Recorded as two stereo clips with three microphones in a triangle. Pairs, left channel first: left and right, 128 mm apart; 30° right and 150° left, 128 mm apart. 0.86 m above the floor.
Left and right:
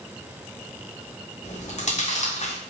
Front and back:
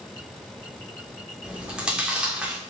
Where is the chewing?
70° left, 2.5 m.